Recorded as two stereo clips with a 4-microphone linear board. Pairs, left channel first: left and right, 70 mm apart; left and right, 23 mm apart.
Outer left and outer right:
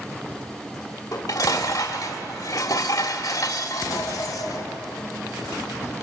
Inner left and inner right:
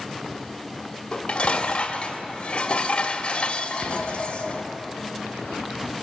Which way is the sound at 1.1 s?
60° left (ahead or behind).